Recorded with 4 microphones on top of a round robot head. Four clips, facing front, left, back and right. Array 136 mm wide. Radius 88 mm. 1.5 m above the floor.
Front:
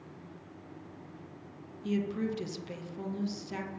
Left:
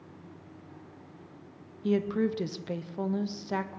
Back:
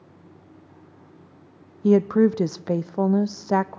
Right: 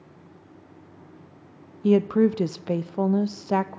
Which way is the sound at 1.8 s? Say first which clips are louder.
Right 8 dB, back 15 dB; 150° right.